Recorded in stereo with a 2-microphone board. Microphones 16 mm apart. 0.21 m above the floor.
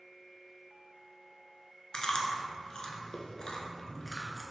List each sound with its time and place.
1.9 s chewing: 60° left (ahead or behind), 0.7 m